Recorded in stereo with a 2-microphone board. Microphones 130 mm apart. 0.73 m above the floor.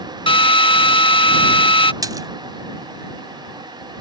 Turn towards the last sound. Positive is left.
turn(degrees=-30)  # may be behind; listen again after turning